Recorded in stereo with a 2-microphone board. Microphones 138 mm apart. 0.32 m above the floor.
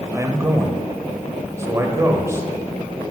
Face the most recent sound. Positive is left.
turn(degrees=-20)  # may be behind; listen again after turning